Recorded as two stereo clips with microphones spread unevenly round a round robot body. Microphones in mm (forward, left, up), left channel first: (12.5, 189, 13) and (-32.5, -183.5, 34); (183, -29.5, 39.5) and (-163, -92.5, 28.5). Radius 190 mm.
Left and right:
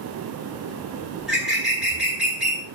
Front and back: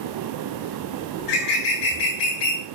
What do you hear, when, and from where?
1.2 s a bird: 10° right, 4 m